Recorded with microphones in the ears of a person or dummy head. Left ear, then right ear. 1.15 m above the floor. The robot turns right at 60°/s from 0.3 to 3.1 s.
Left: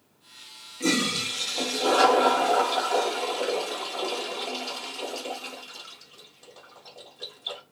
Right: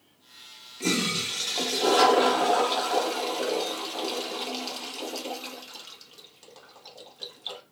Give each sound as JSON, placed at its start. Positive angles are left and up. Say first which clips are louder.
{"t": 0.8, "sound": "a toilet flushing", "louder": "left 2 dB", "azimuth_deg": -165, "distance_m": 1.1}